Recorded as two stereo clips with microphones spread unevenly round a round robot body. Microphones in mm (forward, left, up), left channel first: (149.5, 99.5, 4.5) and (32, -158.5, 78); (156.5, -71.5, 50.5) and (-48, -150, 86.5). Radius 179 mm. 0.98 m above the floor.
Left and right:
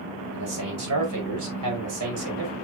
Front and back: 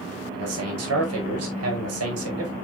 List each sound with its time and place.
0.3 s a man speaking: 165° right, 5.5 m; by 2.5 s 155° right, 5.5 m